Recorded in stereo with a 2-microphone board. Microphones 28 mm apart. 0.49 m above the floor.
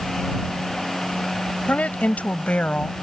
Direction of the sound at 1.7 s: 65° left (ahead or behind).